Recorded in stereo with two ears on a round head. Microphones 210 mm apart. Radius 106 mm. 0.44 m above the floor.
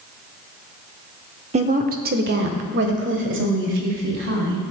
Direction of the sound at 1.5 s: 30° right (ahead or behind).